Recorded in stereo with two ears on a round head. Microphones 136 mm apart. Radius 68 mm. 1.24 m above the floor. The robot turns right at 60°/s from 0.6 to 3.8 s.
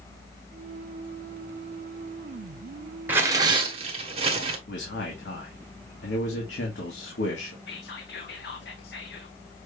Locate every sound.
3.1 s tearing paper: 165° right, 1.2 m; by 4.6 s 120° right, 1.2 m
4.7 s a man speaking: 85° left, 1.6 m
7.7 s whispering: 75° left (ahead or behind), 0.8 m